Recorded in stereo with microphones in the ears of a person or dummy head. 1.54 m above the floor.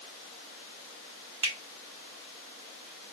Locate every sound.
1.4 s a finger snap: 30° right (ahead or behind), 1.1 m